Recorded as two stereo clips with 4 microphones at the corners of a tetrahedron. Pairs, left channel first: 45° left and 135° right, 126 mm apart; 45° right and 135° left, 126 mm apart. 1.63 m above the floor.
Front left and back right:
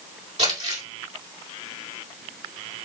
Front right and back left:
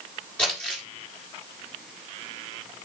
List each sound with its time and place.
0.4 s crumpling: 125° right, 2 m